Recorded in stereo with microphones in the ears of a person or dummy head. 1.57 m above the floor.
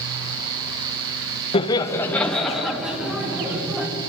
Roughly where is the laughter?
Left.